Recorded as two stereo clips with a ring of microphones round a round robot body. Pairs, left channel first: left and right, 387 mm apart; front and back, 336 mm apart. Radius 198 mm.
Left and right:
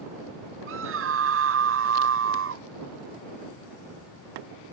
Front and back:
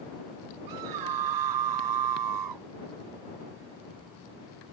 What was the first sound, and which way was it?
A scream, 145° right.